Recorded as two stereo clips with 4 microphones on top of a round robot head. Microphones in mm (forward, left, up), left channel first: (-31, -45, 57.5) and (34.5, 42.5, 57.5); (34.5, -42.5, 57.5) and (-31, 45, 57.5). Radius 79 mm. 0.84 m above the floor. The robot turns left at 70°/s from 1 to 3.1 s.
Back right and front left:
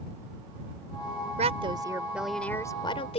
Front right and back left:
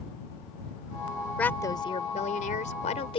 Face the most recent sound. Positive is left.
turn(degrees=-95)